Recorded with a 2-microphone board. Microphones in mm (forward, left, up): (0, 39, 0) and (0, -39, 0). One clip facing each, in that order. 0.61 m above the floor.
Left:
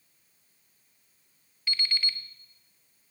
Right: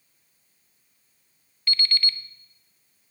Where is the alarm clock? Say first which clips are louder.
Right 4 dB; 10° left (ahead or behind), 0.9 m.